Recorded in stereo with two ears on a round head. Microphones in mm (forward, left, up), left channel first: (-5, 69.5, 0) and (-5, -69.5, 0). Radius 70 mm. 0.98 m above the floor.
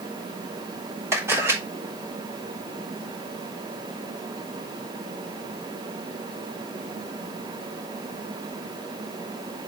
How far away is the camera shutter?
About 4 m.